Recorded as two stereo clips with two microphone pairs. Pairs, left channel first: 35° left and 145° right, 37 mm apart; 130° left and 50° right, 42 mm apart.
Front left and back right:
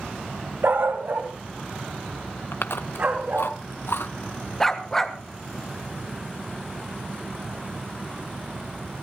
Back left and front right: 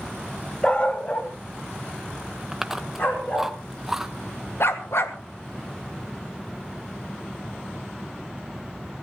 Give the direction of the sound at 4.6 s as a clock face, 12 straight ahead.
8 o'clock.